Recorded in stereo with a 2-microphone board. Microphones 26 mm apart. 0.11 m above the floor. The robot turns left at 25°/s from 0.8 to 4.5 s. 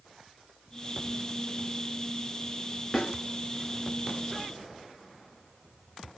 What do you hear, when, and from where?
2.9 s a snare drum: 20° left (ahead or behind), 1.7 m